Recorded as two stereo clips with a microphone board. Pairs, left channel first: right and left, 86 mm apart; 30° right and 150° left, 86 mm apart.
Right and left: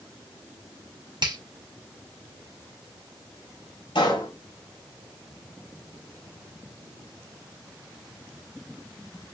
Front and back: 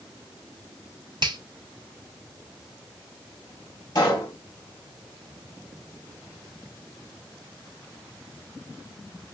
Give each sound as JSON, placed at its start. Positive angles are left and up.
{"t": 1.2, "sound": "a finger snap", "azimuth_deg": 120, "distance_m": 1.8}
{"t": 4.0, "sound": "a pop", "azimuth_deg": -75, "distance_m": 4.0}